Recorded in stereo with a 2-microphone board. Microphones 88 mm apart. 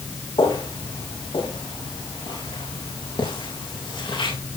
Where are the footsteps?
70° left (ahead or behind), 9.5 m; by 4.3 s 75° left (ahead or behind), 12 m.